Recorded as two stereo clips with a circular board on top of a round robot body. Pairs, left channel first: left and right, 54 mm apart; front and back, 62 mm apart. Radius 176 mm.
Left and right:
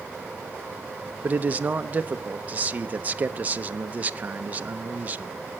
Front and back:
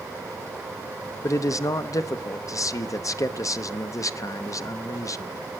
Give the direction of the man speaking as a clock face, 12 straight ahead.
1 o'clock.